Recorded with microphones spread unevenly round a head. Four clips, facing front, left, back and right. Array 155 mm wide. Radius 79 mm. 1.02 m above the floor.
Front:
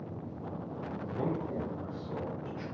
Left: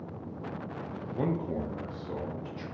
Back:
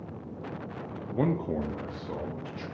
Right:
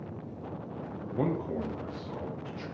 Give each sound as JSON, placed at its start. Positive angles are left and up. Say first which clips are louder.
{"t": 1.1, "sound": "a man speaking", "louder": "right 1 dB, back 7 dB", "azimuth_deg": -130, "distance_m": 0.7}